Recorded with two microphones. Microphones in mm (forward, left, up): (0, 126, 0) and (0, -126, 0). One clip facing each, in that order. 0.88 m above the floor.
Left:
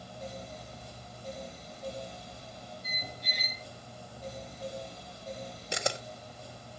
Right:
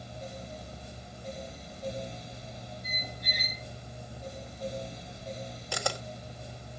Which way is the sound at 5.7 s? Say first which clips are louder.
Left 1 dB; 20° left (ahead or behind).